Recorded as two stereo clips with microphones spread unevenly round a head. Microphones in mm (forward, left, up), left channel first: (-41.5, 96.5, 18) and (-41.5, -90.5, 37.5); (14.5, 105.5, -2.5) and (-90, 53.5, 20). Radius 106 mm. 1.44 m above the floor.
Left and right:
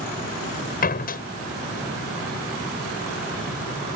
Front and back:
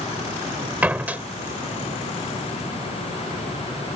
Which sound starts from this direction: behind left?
A door slam, at 0.8 s.